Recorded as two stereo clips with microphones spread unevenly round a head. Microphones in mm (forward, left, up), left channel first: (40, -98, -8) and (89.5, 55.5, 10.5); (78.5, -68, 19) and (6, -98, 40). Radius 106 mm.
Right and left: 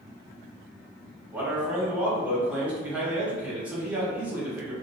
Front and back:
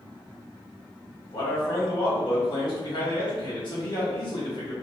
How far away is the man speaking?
About 1.5 m.